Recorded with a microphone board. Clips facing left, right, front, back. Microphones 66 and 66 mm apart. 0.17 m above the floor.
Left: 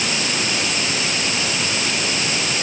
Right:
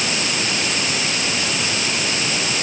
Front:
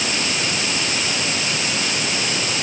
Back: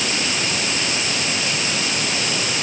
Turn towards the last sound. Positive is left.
No sound to turn to.